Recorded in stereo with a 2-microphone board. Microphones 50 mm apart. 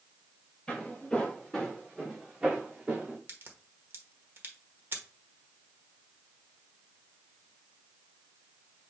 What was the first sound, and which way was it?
Footsteps, 20° left (ahead or behind).